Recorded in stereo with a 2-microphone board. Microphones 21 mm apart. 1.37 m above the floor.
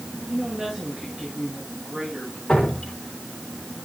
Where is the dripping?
35° left (ahead or behind), 3.5 m.